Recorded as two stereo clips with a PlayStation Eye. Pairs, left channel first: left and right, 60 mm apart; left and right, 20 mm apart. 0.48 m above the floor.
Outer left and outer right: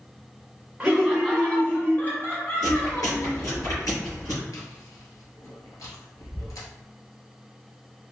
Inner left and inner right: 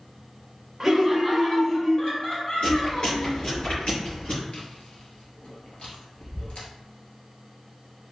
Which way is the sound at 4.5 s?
70° left (ahead or behind).